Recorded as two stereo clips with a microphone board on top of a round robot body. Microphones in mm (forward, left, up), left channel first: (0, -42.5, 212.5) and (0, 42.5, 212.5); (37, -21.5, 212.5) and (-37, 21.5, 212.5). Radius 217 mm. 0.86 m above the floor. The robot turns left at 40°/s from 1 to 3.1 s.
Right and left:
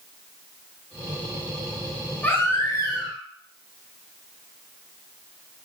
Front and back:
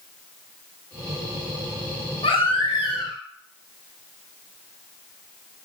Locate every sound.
2.2 s a baby crying: 15° right, 4.5 m; by 3.2 s 50° right, 4.5 m